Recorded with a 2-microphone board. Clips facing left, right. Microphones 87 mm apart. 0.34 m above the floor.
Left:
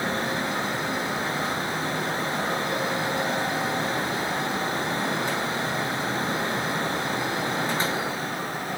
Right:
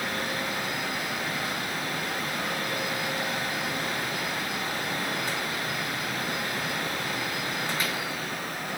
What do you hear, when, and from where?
Only background noise.